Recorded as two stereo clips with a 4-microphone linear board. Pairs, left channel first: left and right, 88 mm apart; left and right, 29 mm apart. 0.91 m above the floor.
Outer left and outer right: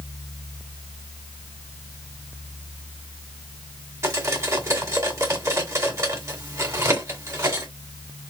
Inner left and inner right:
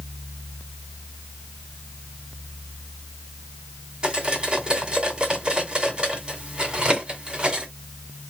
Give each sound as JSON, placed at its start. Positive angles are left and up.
{"t": 4.0, "sound": "cutlery clinking", "side_deg": -40, "distance_m": 1.9}